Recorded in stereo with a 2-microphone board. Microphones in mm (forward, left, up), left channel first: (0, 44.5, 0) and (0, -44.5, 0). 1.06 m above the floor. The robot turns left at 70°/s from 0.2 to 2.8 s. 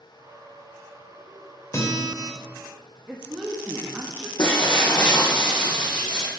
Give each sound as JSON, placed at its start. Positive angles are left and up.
{"t": 1.7, "sound": "a guitar", "azimuth_deg": 150, "distance_m": 2.5}
{"t": 3.1, "sound": "a woman speaking", "side_deg": -15, "distance_m": 1.3}
{"t": 4.4, "sound": "breaking glass", "side_deg": 55, "distance_m": 3.5}